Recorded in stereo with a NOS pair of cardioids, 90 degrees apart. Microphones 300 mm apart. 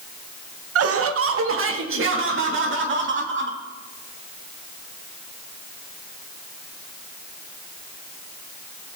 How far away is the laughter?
About 1.0 m.